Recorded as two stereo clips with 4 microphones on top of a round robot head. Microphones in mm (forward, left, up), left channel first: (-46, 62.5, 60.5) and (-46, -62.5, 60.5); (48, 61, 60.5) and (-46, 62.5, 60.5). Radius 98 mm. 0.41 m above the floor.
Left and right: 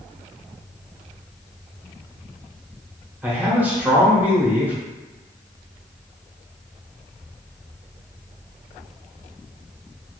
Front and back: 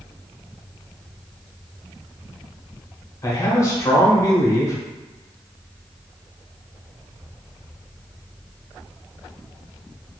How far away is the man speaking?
About 0.8 m.